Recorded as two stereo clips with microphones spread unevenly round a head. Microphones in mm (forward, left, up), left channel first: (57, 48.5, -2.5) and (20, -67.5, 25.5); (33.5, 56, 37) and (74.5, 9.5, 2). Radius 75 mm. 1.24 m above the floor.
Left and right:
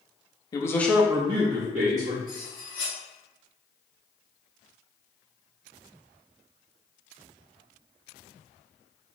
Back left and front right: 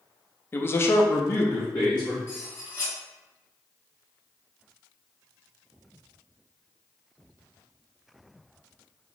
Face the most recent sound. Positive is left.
turn(degrees=85)